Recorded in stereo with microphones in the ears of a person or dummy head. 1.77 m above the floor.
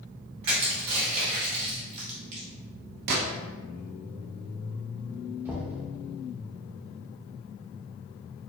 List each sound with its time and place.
0.4 s crushing: 35° right (ahead or behind), 1.2 m
3.1 s a gunshot: 60° right (ahead or behind), 0.8 m
5.5 s knocking: 10° right (ahead or behind), 0.7 m